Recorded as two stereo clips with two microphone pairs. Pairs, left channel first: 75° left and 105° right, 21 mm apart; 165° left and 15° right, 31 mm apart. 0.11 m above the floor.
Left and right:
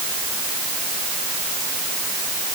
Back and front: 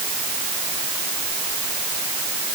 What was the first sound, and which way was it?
Only background noise.